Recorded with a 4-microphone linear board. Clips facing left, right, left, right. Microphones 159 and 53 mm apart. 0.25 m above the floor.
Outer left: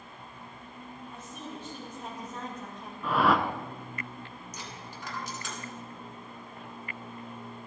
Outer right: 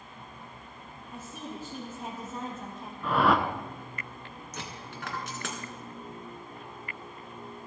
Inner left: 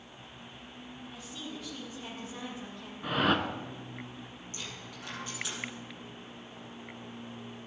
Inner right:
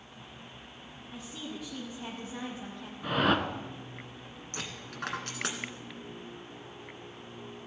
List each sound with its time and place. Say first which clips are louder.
1.1 s a woman speaking: outer right 4 dB, inner right 3 dB; 10° right (ahead or behind), 3.5 m; by 2.9 s 5° right (ahead or behind), 4.5 m
3.0 s a whoosh: outer right 1 dB, inner right 1 dB; centre (ahead or behind), 0.8 m
4.5 s a dropped coin: outer right 5 dB, inner right 5 dB; 70° right (ahead or behind), 1.6 m